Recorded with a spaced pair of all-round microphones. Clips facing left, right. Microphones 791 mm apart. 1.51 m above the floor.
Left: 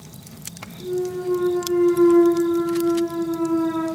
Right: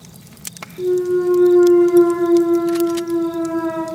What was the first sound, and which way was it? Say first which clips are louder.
A clunk: right 9 dB; 75° right (ahead or behind).